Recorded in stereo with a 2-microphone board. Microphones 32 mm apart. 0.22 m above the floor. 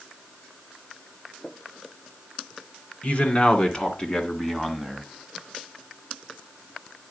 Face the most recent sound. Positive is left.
turn(degrees=0)  # may be behind; listen again after turning